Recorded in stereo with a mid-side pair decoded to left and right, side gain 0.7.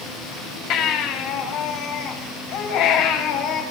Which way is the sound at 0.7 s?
60° left.